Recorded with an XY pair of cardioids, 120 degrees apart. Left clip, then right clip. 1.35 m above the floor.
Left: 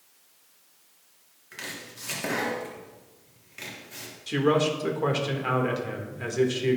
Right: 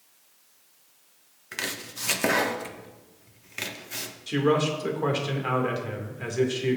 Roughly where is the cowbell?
I don't hear a cowbell.